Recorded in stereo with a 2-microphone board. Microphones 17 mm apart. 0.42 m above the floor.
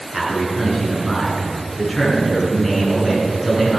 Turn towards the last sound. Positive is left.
turn(degrees=15)  # may be behind; listen again after turning